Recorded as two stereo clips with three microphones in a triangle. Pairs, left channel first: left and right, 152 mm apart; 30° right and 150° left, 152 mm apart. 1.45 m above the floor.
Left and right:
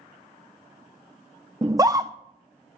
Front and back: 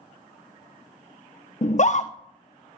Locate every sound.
1.6 s a scream: 30° right, 0.5 m